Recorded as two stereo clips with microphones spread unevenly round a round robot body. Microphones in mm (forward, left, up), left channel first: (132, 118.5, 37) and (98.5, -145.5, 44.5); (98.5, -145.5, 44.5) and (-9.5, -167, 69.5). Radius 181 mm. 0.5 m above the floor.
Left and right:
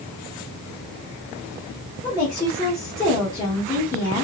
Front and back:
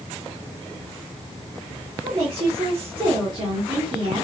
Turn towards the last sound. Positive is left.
turn(degrees=155)